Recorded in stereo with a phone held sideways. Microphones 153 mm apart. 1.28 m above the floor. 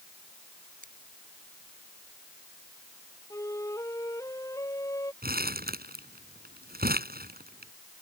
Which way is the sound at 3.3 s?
20° left (ahead or behind).